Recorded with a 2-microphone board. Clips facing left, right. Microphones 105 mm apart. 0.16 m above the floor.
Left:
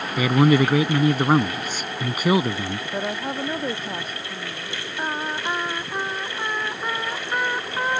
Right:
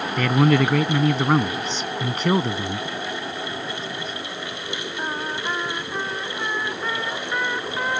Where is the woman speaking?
50° left (ahead or behind).